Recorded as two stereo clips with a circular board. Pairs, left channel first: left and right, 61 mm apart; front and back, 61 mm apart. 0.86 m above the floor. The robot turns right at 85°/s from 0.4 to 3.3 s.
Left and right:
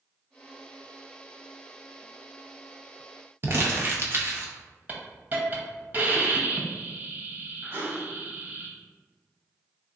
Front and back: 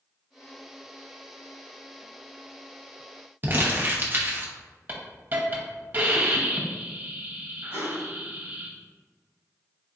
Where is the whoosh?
45° right, 1.5 m.